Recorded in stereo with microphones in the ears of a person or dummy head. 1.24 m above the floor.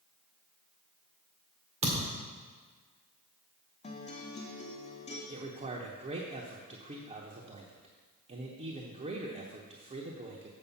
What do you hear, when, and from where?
1.8 s a thud: 30° right (ahead or behind), 1.9 m
3.8 s a guitar: 35° left (ahead or behind), 1.0 m
5.3 s a man speaking: 30° right (ahead or behind), 0.8 m